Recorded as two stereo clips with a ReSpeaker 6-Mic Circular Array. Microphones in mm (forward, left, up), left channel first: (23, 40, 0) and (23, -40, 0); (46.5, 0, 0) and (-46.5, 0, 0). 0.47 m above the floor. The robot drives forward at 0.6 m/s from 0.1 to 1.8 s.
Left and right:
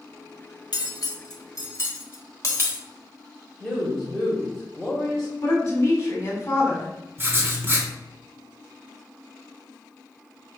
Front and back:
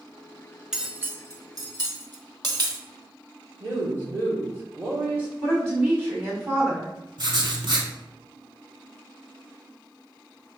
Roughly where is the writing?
Behind right.